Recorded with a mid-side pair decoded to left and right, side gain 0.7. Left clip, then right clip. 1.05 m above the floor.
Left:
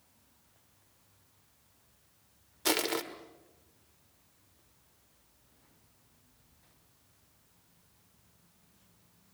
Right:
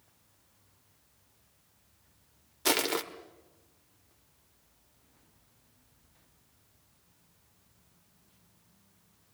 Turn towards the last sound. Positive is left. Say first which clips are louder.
# right 2 dB
turn(degrees=-10)